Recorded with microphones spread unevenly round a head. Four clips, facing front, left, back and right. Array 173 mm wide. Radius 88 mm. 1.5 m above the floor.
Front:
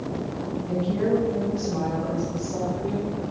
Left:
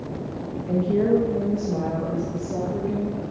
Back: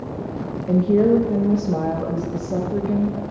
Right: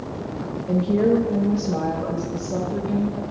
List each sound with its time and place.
0.7 s a woman speaking: 170° right, 1.8 m